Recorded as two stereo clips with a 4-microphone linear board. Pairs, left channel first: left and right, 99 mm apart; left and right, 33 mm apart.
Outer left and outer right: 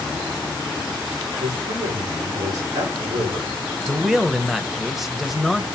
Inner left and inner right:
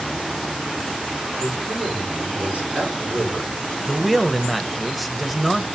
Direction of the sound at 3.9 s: 5° right (ahead or behind).